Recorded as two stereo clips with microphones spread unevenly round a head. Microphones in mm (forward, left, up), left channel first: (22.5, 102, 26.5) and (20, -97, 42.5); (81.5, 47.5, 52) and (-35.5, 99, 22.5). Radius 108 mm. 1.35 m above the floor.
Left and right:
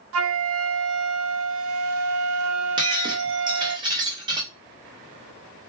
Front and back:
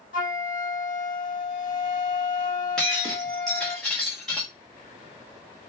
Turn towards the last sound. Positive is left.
turn(degrees=-75)